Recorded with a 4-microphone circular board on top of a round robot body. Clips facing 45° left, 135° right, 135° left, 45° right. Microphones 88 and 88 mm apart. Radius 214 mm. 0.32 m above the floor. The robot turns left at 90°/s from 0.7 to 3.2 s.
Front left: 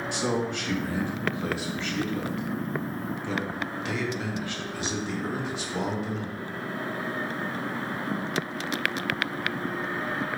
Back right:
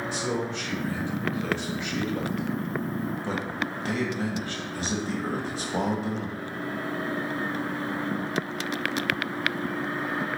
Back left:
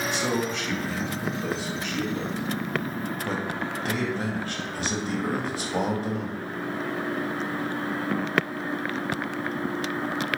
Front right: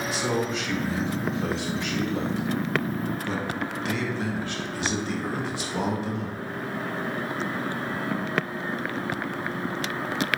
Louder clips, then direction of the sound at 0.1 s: Front left 4 dB, front right 2 dB; 45° left.